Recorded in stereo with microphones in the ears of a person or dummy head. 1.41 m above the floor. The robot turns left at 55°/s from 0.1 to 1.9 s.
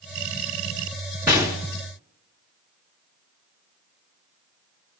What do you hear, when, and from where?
1.3 s a gunshot: 5° right (ahead or behind), 1.0 m; by 1.6 s centre (ahead or behind), 1.0 m